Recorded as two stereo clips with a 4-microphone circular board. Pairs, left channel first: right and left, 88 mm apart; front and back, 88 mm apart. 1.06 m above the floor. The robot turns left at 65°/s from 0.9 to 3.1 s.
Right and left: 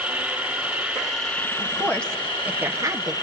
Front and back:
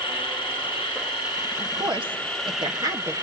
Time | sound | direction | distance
0.0 | an insect | 10° left | 2.5 m
1.6 | a woman speaking | 140° right | 1.2 m